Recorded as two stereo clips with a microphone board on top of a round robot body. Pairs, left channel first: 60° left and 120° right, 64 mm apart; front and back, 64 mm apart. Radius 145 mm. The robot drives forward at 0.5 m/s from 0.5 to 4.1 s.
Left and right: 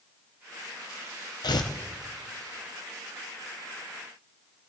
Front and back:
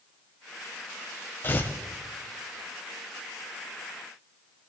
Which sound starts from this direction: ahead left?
Tearing paper, at 1.4 s.